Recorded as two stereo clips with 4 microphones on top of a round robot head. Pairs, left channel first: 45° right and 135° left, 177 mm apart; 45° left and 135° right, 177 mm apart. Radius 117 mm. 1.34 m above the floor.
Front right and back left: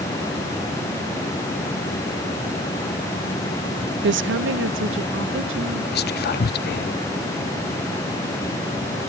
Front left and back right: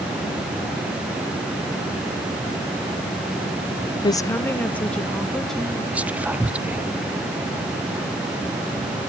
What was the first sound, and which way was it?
A woman speaking, 110° left.